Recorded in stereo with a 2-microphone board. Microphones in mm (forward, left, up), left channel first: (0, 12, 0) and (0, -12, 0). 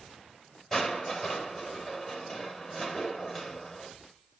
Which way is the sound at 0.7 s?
5° left (ahead or behind).